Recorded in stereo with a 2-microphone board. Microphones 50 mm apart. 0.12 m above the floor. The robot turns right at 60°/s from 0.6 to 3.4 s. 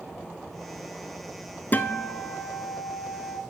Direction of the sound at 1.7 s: 100° left.